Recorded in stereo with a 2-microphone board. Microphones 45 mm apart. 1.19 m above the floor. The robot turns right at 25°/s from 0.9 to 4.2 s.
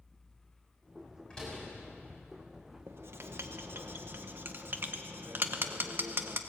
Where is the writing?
65° right (ahead or behind), 1.1 m; by 6.4 s 50° right (ahead or behind), 1.1 m.